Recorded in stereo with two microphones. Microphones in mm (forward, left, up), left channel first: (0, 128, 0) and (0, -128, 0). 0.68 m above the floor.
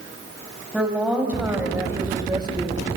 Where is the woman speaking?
5° right (ahead or behind), 4.5 m; by 2.8 s 20° right (ahead or behind), 2.5 m.